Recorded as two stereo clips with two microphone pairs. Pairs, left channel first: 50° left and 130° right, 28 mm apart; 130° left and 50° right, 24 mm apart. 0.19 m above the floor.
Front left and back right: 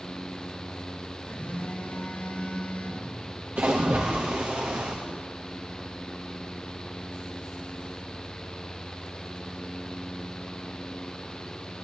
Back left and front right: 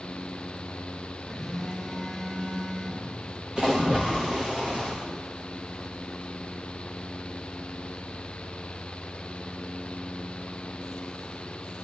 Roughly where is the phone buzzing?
Ahead.